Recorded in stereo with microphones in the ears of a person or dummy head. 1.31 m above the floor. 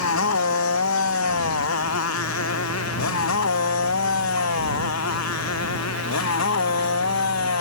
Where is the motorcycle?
90° left; by 7.6 s 85° left.